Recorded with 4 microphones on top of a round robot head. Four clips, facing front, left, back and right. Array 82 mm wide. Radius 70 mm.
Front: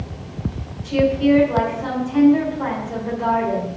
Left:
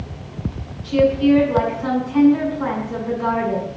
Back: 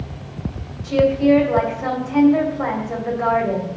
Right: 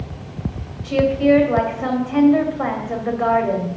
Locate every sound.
0.8 s a woman speaking: 115° right, 3.5 m